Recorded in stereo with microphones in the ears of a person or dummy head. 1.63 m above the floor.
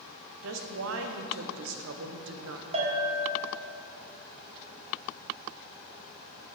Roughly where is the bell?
Right.